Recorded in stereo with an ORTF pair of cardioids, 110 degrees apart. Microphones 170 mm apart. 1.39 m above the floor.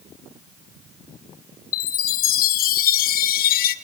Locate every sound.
1.7 s a chime: 65° left, 1.2 m